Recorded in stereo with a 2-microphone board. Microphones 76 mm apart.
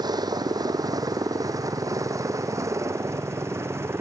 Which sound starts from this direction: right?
A helicopter, at 0.0 s.